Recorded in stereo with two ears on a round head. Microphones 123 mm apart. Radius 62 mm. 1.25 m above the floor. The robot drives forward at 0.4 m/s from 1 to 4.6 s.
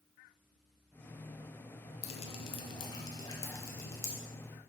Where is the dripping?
50° left (ahead or behind), 0.6 m; by 4.1 s 20° left (ahead or behind), 1.3 m.